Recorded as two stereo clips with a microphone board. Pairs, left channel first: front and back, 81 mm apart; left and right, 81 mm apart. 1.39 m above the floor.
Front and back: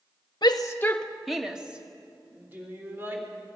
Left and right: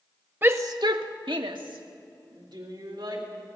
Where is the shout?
30° right, 0.9 m; by 3.2 s 115° right, 4 m.